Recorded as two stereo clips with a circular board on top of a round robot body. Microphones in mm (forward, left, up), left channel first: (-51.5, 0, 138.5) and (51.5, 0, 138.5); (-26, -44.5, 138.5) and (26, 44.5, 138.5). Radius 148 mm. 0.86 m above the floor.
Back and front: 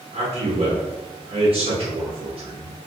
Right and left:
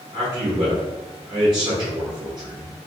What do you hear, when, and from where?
0.1 s a man speaking: 15° left, 1.8 m